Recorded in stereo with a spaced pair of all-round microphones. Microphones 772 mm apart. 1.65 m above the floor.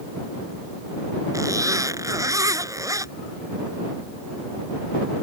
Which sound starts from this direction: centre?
A zipper, at 1.3 s.